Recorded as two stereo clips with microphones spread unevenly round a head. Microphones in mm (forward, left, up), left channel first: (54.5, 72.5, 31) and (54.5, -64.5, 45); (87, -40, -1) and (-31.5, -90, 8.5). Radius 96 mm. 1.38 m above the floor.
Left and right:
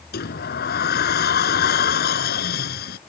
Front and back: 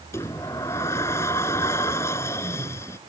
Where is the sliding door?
100° left.